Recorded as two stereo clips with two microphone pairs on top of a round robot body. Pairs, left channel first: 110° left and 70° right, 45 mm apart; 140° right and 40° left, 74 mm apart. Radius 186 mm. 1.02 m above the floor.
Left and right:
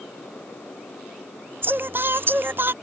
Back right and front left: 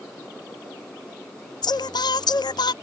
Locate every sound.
1.6 s singing: 115° right